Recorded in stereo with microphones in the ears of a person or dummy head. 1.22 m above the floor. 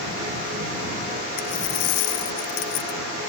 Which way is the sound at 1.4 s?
55° left (ahead or behind).